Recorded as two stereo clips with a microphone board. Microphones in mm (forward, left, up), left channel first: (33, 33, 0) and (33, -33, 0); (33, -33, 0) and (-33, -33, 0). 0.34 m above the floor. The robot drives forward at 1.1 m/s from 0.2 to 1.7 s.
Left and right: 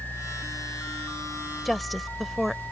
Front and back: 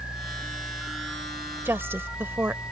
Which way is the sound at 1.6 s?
Straight behind.